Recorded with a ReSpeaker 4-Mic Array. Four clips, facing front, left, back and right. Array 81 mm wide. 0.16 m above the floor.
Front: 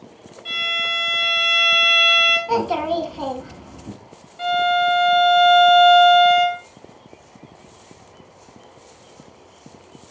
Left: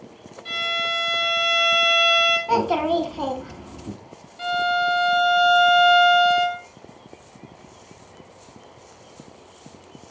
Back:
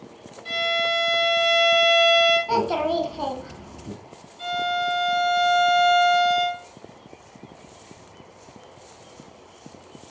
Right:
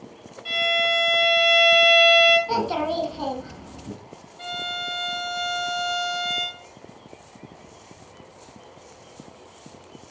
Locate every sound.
0.5 s a violin: 40° right, 1.9 m
2.5 s a child speaking: 70° left, 0.7 m
4.4 s a violin: 15° left, 0.8 m